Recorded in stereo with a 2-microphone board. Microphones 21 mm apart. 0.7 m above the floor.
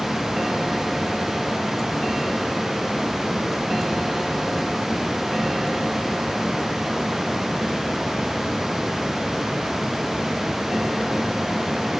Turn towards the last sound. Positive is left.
No sound to turn to.